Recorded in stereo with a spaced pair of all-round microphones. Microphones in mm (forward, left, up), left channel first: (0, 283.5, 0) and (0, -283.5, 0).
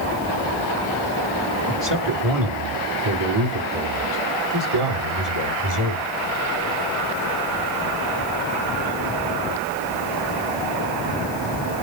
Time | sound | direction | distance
1.7 | a man speaking | 45° right (ahead or behind) | 2.5 m